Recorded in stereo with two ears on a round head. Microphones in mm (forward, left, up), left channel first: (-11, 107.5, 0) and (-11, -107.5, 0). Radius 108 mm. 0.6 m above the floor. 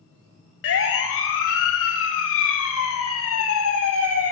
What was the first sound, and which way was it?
A siren, 60° left (ahead or behind).